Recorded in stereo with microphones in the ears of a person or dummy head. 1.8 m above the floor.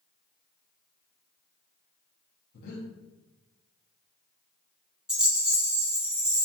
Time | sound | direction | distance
2.5 | breathing | 55° left (ahead or behind) | 0.7 m
5.1 | a rattle | 5° right (ahead or behind) | 0.5 m